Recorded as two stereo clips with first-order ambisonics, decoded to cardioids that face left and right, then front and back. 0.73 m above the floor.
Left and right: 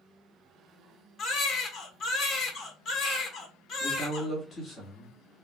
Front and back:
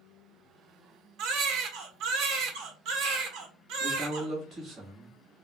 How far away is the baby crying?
About 0.9 m.